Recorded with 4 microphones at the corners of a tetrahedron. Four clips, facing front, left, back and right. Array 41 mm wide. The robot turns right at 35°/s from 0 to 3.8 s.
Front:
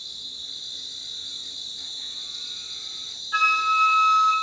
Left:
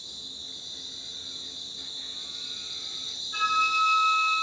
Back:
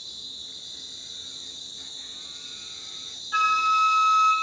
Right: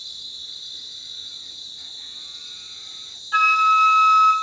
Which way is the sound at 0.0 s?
55° right.